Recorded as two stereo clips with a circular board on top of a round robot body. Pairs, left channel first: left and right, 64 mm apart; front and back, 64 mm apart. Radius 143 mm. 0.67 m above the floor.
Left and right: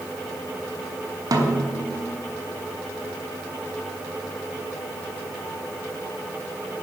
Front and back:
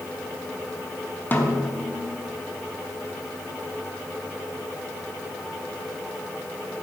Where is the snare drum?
65° right, 1.0 m.